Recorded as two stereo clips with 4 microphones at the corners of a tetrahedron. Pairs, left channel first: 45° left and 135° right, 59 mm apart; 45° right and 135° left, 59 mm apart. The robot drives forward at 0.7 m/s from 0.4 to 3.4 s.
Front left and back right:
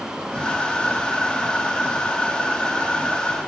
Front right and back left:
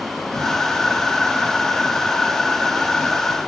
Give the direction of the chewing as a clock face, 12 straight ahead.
I don't hear chewing.